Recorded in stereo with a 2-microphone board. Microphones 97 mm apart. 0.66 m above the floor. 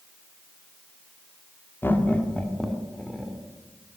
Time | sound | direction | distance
1.8 | laughter | 20° left (ahead or behind) | 1.3 m